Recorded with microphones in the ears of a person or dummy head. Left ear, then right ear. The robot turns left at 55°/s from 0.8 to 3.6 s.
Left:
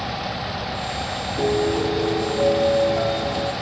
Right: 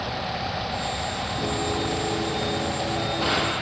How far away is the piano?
About 2 m.